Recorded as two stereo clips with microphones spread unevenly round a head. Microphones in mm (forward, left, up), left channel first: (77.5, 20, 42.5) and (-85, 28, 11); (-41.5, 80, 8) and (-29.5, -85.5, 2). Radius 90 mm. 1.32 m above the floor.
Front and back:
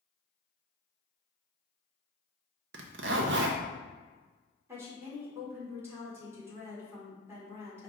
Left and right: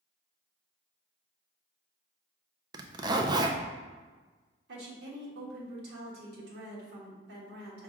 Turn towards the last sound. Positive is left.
turn(degrees=-105)